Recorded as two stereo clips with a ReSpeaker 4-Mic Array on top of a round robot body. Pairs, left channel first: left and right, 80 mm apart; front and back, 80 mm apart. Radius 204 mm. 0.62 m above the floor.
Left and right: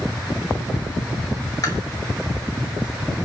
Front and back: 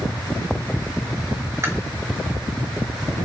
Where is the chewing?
125° left, 2.5 m.